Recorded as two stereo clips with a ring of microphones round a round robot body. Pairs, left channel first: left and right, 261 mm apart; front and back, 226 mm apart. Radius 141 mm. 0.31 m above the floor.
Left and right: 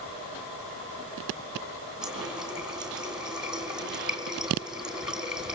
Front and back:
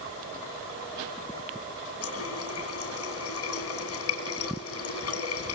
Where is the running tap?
5° right, 2.5 m.